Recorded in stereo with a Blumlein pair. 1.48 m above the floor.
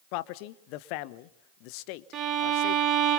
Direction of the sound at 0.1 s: 45° left.